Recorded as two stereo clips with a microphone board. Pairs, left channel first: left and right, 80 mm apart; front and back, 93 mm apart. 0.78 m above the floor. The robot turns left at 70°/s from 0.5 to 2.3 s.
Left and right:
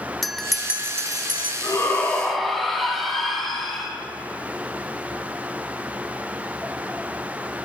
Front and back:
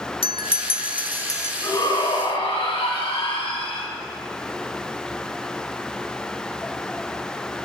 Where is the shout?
50° left, 5 m; by 3.9 s straight ahead, 5 m.